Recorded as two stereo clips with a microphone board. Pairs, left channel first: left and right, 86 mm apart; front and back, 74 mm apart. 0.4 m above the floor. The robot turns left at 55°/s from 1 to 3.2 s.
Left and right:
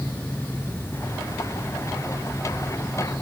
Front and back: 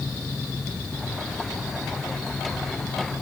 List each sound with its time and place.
Only background noise.